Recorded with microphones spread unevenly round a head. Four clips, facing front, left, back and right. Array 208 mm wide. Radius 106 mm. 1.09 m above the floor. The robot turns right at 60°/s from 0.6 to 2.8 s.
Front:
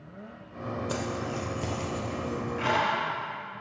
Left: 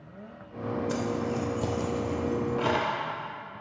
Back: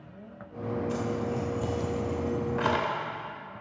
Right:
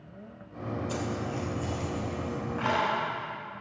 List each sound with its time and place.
0.9 s keys jangling: 35° left, 2.5 m; by 2.9 s 145° left, 2.5 m